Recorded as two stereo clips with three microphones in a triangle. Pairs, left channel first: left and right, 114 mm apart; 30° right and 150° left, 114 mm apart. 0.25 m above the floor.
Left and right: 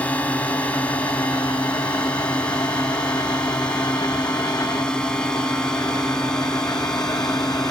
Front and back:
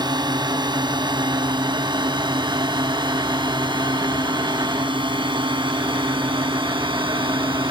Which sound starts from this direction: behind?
A drone, at 0.0 s.